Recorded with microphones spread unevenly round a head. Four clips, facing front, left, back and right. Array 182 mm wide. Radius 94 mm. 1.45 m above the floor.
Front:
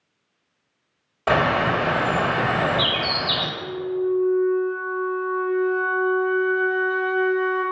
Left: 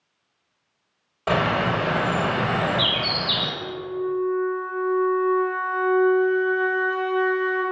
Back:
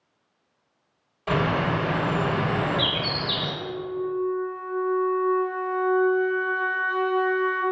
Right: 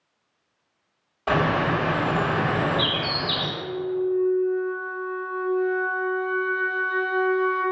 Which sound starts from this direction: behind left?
A flute, at 3.6 s.